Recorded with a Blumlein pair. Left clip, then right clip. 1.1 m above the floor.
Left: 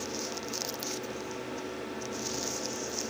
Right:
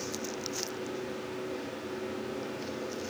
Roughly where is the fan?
Ahead.